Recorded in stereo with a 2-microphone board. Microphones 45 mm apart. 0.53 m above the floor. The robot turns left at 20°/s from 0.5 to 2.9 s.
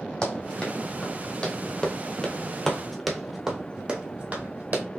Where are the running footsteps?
25° left (ahead or behind), 1.5 m; by 4.8 s 40° right (ahead or behind), 1.4 m.